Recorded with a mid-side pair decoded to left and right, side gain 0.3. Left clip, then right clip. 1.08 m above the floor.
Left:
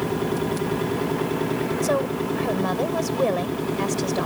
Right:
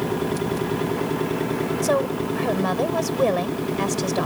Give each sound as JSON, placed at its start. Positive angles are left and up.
{"t": 1.8, "sound": "a woman speaking", "azimuth_deg": -20}